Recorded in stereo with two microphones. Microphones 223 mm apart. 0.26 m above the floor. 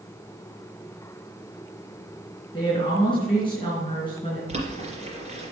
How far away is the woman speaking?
About 3 m.